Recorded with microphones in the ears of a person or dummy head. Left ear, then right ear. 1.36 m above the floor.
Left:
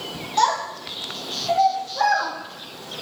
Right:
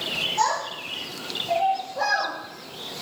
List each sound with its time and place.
0.4 s a child speaking: 60° left (ahead or behind), 1.2 m; by 2.3 s 55° left (ahead or behind), 1.2 m